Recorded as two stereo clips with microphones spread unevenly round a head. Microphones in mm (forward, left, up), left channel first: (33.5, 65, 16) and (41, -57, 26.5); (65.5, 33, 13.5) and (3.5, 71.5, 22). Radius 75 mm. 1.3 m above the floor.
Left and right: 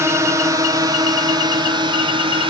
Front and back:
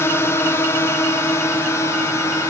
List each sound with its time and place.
0.0 s a drone: 35° right; by 2.5 s 60° right